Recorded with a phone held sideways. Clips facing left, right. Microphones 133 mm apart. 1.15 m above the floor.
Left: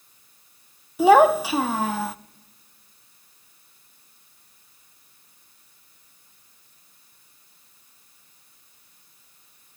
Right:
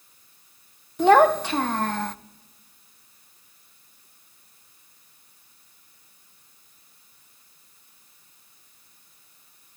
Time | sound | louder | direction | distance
1.0 | a child speaking | left 2 dB | 5° left (ahead or behind) | 0.5 m